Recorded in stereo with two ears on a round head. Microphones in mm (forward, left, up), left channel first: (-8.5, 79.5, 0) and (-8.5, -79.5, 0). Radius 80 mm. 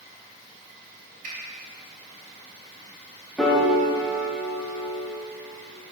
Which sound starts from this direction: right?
A finger snap, at 1.2 s.